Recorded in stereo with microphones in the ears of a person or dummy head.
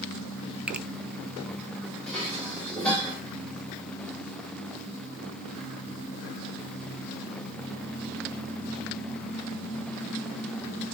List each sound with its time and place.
0.7 s a finger snap: 5° right (ahead or behind), 0.6 m
2.1 s dishes clattering: 5° left (ahead or behind), 5.5 m